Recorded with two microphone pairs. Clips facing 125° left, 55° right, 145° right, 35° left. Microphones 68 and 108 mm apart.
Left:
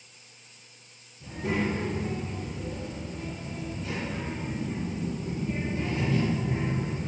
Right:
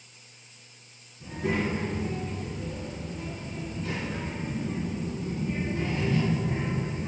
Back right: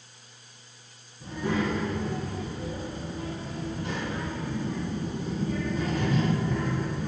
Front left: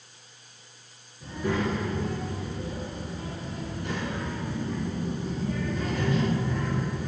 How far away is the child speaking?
About 1.5 m.